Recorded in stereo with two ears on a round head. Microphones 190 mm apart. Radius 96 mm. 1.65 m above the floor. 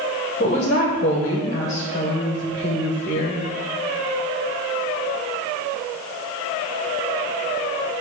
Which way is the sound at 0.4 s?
35° left (ahead or behind).